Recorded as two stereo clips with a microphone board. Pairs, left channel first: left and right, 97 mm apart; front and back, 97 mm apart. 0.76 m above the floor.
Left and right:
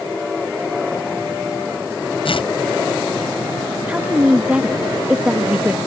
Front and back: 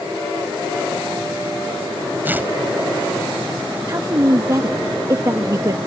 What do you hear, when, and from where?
2.2 s tearing paper: 110° left
3.9 s a woman speaking: 160° right